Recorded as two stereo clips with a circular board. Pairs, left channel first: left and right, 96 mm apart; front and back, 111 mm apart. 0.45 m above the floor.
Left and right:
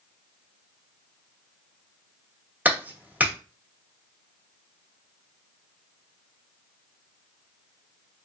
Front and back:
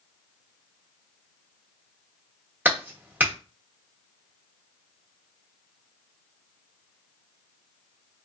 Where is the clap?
135° right, 1.1 m.